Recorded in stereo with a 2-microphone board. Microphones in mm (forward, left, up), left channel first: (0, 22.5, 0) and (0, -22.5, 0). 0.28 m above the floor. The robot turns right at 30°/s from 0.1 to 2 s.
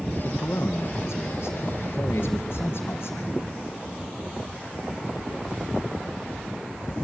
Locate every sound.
0.2 s a man speaking: 70° left, 2 m; by 3.4 s 125° left, 2 m